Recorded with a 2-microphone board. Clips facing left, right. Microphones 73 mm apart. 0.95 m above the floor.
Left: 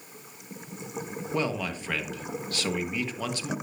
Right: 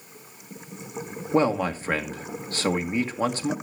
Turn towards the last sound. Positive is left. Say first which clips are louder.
# right 8 dB
turn(degrees=-35)  # may be behind; listen again after turning